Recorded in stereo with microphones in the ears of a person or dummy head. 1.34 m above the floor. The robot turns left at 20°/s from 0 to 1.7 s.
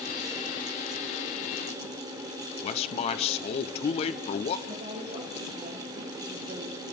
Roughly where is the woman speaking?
Right.